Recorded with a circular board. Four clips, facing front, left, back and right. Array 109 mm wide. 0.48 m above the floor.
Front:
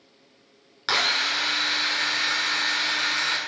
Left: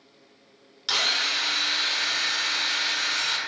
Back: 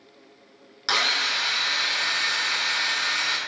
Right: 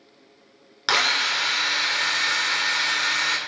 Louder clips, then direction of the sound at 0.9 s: Right 6 dB, even; 80° right.